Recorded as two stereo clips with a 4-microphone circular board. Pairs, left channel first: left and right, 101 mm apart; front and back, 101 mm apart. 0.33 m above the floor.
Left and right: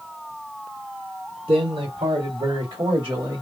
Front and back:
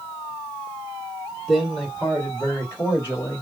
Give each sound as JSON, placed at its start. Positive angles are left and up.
{"t": 1.5, "sound": "a man speaking", "azimuth_deg": -90, "distance_m": 2.5}